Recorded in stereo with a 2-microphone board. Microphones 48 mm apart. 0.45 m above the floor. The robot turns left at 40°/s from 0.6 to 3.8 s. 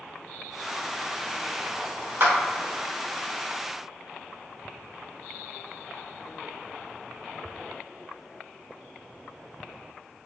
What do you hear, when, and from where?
2.2 s a clap: 45° right (ahead or behind), 0.9 m